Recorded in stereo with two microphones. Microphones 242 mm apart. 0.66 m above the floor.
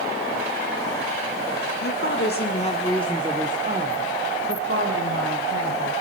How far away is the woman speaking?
About 1.7 m.